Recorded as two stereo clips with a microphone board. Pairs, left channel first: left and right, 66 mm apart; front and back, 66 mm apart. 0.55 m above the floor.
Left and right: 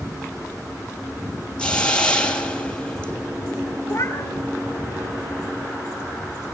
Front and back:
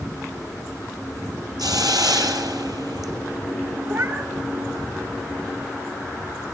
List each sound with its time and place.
1.6 s a hiss: 165° left, 2.5 m
3.9 s a cat meowing: 135° left, 1.6 m